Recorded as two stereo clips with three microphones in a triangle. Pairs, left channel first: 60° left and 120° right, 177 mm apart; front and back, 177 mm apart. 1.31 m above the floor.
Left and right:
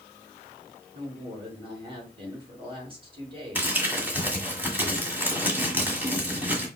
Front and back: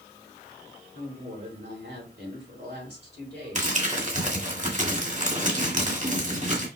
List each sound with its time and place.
0.9 s a woman speaking: straight behind, 3 m
3.5 s crumpling: 165° left, 1.6 m